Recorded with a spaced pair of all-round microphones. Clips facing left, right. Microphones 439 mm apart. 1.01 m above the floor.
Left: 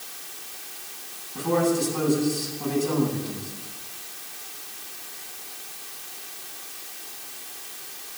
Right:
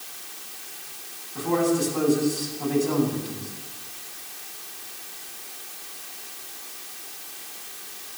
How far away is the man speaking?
About 9.5 m.